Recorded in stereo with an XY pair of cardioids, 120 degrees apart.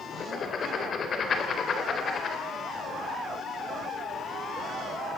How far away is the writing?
About 4 m.